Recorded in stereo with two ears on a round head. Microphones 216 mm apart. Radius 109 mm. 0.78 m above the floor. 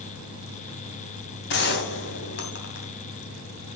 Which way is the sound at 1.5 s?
45° left (ahead or behind).